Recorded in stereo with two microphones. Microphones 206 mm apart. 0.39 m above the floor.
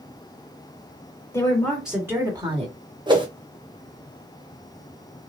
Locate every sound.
1.3 s a woman speaking: 15° left (ahead or behind), 1.5 m; by 2.7 s 30° right (ahead or behind), 1.5 m
3.1 s a whoosh: 20° right (ahead or behind), 0.7 m